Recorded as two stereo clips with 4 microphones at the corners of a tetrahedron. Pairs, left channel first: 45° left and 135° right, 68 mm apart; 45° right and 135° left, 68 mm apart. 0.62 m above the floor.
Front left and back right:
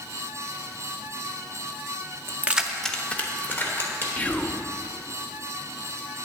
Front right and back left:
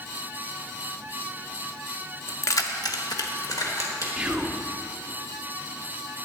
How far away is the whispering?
About 0.6 m.